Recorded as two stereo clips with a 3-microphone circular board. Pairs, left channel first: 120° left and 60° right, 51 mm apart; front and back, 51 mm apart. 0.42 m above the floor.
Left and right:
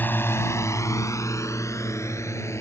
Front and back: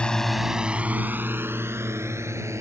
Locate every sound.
0.0 s a drone: 70° left; by 2.6 s 150° left